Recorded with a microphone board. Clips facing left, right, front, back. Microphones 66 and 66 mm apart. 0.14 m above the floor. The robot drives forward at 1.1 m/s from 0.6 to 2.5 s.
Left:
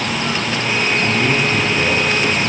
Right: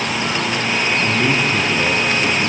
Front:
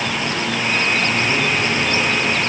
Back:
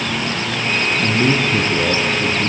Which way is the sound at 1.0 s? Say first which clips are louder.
Left 1 dB, back 2 dB; 160° right.